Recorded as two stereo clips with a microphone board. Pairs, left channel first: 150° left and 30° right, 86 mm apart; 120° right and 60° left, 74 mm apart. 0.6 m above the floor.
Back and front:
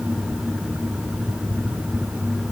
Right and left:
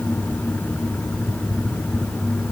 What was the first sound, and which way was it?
Only background noise.